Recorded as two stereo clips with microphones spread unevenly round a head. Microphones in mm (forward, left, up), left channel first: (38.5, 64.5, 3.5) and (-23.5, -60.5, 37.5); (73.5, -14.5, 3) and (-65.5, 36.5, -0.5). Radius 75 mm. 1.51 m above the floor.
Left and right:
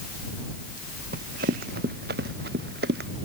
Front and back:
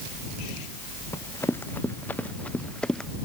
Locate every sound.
1.1 s running footsteps: 95° right; by 3.1 s 105° right